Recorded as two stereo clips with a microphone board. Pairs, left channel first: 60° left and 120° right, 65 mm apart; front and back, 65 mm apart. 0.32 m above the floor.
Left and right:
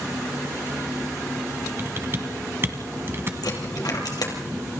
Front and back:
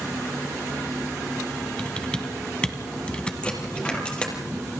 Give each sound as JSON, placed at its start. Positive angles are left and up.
{"t": 1.8, "sound": "typing on a keyboard", "azimuth_deg": -70, "distance_m": 2.0}
{"t": 3.4, "sound": "a dropped coin", "azimuth_deg": 75, "distance_m": 4.0}